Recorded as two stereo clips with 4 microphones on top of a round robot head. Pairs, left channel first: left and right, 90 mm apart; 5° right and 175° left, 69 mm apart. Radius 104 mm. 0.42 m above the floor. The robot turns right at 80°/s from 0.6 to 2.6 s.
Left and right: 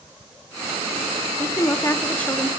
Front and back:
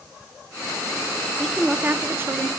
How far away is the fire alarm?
No fire alarm in this recording.